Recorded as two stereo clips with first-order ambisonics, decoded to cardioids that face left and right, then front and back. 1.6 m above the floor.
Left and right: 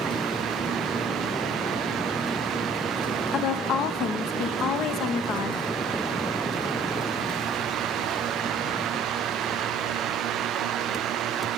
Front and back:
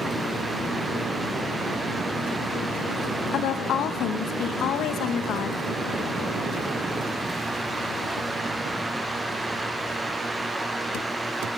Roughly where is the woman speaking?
Ahead left.